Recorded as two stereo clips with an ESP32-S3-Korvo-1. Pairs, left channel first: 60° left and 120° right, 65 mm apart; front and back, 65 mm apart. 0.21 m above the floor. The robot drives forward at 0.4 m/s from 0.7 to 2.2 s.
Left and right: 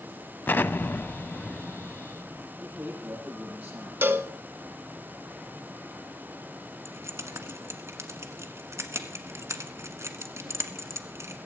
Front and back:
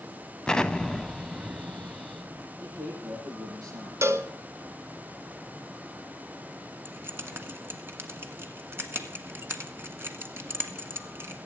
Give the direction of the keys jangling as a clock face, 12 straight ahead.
5 o'clock.